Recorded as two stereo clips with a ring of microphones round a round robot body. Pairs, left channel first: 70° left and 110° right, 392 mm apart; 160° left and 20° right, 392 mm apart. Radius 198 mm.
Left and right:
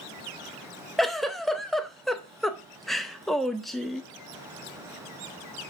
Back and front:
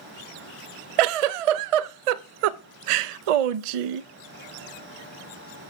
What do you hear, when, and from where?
1.0 s a giggle: 20° right, 0.5 m